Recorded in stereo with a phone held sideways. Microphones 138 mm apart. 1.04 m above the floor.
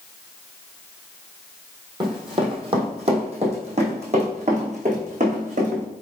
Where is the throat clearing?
I don't hear throat clearing.